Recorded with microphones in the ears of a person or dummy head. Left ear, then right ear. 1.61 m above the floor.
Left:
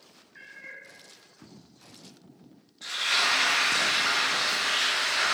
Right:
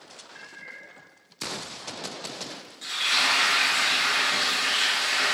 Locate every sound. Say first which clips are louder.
0.3 s a cat meowing: even; 30° right (ahead or behind), 1.7 m
2.8 s frying: right 2 dB; 30° right (ahead or behind), 1.6 m